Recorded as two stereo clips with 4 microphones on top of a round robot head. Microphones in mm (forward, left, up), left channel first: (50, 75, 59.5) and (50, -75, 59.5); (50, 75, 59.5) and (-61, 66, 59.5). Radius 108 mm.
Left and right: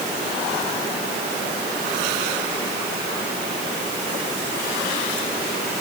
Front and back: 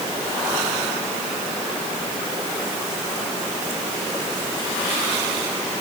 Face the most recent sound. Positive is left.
No sound to turn to.